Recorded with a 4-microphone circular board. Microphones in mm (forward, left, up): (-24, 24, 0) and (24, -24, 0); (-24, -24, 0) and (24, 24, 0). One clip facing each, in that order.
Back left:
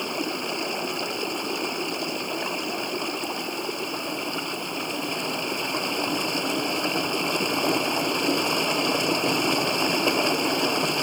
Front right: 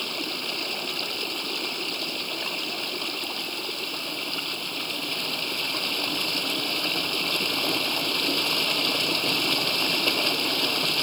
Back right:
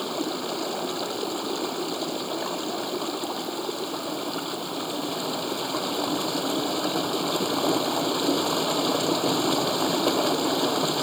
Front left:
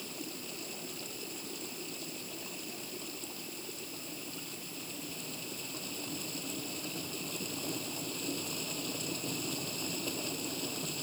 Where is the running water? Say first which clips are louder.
Back left 4 dB, back right 16 dB; 155° right.